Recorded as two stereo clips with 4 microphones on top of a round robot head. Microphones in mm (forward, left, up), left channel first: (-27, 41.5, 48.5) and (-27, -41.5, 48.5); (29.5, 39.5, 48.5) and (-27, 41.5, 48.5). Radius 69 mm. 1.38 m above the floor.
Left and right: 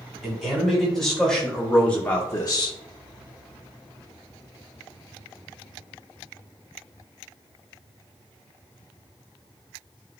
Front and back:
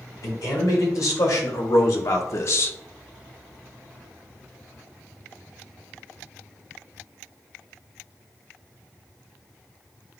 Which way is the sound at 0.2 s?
Straight ahead.